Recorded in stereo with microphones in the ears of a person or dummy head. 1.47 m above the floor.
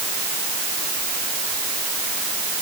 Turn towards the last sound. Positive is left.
No sound to turn to.